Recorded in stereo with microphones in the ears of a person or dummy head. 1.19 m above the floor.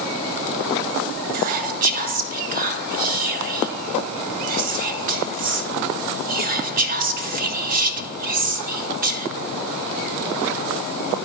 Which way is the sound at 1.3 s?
45° right (ahead or behind).